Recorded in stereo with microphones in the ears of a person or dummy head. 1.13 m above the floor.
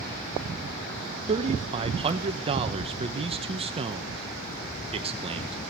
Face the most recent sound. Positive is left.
turn(degrees=-25)  # may be behind; listen again after turning